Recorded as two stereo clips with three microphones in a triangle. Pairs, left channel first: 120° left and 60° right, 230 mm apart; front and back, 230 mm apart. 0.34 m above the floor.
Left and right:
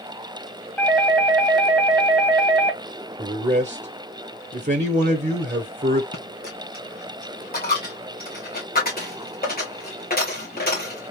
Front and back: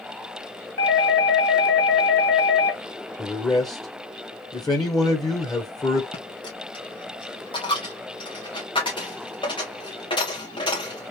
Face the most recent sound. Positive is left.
turn(degrees=70)